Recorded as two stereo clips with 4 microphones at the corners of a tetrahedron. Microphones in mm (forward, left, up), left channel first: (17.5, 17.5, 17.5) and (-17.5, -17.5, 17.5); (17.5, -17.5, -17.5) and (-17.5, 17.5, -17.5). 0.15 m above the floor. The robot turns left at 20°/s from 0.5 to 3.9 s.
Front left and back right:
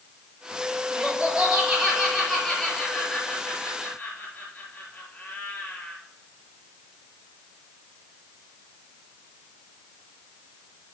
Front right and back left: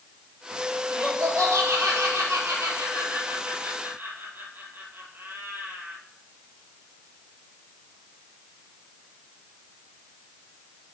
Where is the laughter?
160° left, 4 m; by 6.0 s 100° left, 4 m.